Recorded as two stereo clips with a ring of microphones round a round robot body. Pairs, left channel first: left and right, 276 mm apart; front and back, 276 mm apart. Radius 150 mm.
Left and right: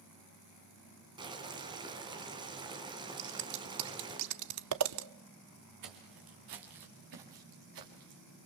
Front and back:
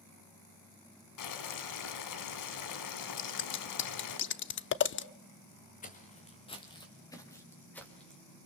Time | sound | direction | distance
1.2 | boiling | 15° right | 2 m
3.2 | scissors | 50° right | 0.8 m
5.8 | footsteps | 60° right | 3.5 m